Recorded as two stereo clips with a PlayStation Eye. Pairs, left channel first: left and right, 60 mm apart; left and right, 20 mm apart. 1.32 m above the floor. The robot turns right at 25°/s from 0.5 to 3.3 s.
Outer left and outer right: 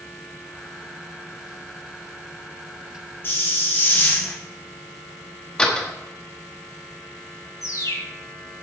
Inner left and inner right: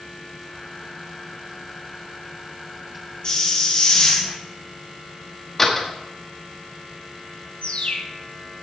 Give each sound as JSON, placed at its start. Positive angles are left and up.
{"t": 3.2, "sound": "a hiss", "side_deg": 35, "distance_m": 2.0}
{"t": 5.6, "sound": "a door slam", "side_deg": 15, "distance_m": 1.4}
{"t": 7.6, "sound": "a bird", "side_deg": 55, "distance_m": 1.2}